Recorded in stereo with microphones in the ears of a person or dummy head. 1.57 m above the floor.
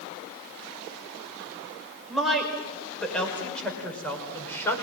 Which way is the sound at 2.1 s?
5° right (ahead or behind).